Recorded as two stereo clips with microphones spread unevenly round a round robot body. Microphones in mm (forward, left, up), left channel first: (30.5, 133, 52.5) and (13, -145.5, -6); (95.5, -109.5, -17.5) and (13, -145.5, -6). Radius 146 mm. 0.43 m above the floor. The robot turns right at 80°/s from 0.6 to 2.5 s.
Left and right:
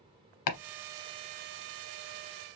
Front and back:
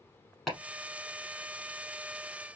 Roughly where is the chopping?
Behind left.